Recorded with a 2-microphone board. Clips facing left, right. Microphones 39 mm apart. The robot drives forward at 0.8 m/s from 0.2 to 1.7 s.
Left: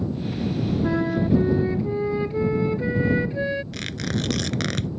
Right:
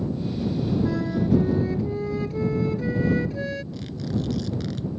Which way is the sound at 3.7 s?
75° left (ahead or behind).